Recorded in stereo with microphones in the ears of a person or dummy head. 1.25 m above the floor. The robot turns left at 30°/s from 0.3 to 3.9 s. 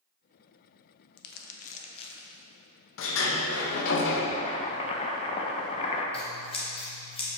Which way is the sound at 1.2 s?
55° left (ahead or behind).